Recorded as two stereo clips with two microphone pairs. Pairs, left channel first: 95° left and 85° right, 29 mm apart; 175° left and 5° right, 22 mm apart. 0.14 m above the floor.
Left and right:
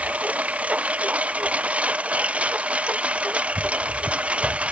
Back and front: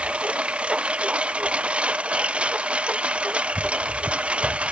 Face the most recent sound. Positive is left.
turn(degrees=-35)